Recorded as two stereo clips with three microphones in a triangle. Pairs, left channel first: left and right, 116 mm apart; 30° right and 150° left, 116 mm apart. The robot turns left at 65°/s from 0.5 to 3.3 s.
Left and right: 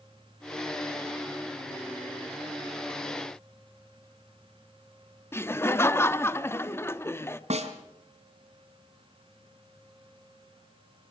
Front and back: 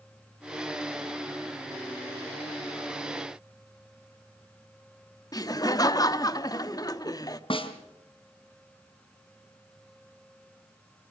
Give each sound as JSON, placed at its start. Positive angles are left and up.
{"t": 5.3, "sound": "laughter", "azimuth_deg": 20, "distance_m": 1.2}
{"t": 7.5, "sound": "a snare drum", "azimuth_deg": -70, "distance_m": 2.5}